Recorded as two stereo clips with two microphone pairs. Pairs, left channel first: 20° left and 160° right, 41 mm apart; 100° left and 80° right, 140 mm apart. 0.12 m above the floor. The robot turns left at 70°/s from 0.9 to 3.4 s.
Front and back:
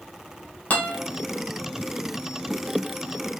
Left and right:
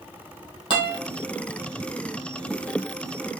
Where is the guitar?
55° left, 1.7 m; by 1.0 s 50° left, 1.7 m.